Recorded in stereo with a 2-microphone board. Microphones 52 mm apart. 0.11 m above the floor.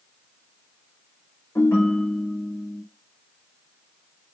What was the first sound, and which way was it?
A ringtone, 70° left (ahead or behind).